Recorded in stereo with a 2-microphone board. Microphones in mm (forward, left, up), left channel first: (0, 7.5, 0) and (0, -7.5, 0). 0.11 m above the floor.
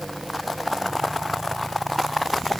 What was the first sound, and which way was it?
Only background noise.